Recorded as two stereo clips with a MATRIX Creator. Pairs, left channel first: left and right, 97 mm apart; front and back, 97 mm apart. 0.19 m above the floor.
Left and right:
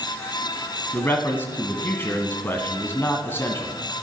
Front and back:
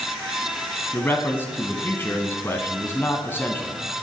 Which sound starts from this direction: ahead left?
A man speaking, at 0.9 s.